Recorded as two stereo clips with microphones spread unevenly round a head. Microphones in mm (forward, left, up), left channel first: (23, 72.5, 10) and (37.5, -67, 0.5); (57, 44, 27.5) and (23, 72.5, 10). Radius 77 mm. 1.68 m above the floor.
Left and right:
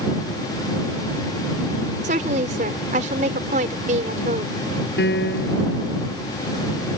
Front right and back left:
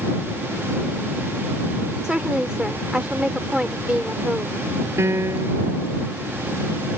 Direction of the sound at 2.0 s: 130° right.